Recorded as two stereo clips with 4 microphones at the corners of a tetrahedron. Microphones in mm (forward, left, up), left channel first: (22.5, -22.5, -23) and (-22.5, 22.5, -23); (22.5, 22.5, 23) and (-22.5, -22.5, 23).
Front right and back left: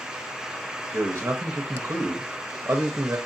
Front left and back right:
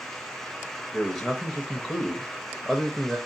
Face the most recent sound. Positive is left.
turn(degrees=145)